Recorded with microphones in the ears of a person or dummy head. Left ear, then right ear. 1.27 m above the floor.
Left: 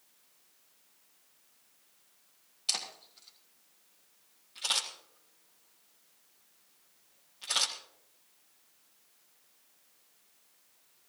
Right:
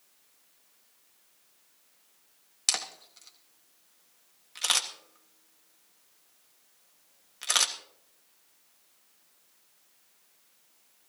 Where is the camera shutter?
55° right (ahead or behind), 1.4 m.